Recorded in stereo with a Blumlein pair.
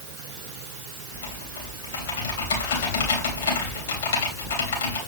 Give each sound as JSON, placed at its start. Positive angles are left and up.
{"t": 1.1, "sound": "typing on a keyboard", "azimuth_deg": 60, "distance_m": 3.0}